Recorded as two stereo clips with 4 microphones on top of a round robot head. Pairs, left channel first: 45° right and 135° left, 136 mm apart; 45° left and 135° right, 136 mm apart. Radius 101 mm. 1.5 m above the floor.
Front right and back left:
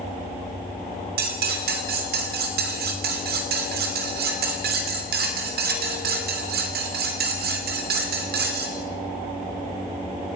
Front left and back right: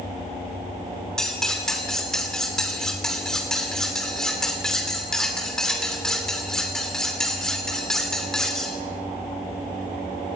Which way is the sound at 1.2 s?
130° left.